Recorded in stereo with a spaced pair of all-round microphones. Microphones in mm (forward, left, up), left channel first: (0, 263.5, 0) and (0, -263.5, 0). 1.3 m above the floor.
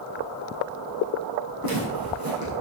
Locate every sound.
1.6 s footsteps: 40° right (ahead or behind), 4.5 m